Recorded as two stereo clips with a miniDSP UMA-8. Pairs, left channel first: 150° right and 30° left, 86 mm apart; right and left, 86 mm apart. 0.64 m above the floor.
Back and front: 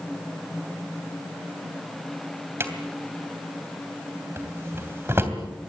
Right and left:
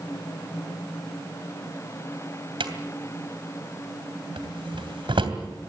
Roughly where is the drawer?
Left.